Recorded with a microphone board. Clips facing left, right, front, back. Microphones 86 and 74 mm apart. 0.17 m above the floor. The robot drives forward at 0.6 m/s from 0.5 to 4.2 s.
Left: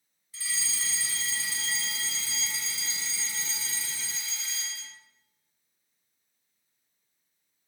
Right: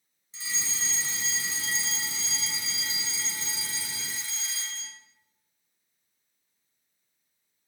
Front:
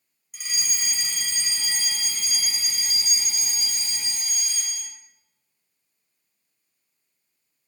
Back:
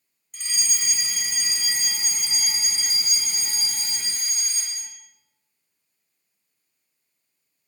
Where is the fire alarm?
75° right, 2 m; by 5.0 s 160° right, 3 m.